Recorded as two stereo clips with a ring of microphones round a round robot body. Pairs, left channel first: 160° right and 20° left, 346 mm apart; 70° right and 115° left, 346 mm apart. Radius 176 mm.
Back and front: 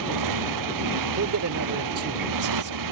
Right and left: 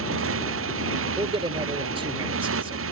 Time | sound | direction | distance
0.0 | a motorcycle | 60° left | ?
1.2 | a man speaking | 45° left | ?